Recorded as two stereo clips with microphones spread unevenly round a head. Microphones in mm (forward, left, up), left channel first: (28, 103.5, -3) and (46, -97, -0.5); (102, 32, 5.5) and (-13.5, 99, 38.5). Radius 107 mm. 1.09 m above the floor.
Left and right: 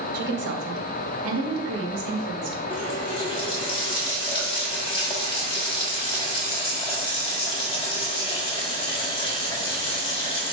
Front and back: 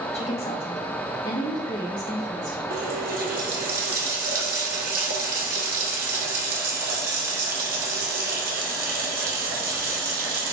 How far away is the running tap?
About 1.4 m.